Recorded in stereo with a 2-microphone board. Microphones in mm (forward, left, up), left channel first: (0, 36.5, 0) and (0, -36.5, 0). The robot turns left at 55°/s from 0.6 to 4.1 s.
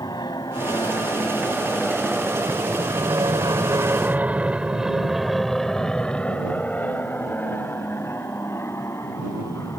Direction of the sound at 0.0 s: 75° left (ahead or behind).